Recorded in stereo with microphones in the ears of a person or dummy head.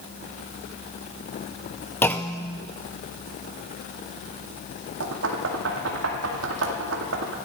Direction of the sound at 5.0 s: 75° right (ahead or behind).